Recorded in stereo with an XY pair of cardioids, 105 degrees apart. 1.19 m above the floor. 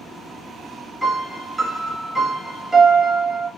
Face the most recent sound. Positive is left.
turn(degrees=-20)